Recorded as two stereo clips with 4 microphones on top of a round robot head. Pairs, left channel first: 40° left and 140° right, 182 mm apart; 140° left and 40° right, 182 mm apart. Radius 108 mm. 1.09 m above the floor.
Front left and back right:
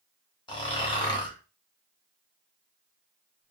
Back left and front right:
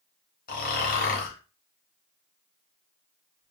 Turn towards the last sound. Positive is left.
turn(degrees=105)